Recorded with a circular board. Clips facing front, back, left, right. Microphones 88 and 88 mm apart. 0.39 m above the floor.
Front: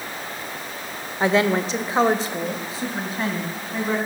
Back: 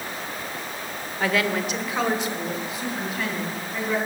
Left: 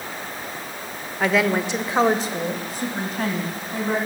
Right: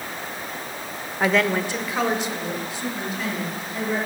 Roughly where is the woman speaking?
Ahead.